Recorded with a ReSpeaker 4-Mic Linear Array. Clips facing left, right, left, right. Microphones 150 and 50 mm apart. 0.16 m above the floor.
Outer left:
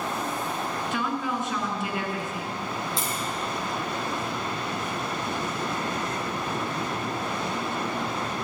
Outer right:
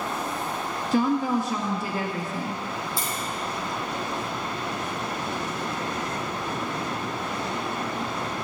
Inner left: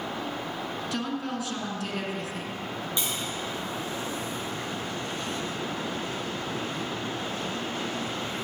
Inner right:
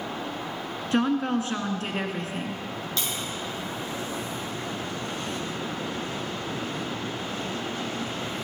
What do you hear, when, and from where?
0.9 s a woman speaking: 35° right (ahead or behind), 1.6 m
3.0 s tapping: 20° left (ahead or behind), 3 m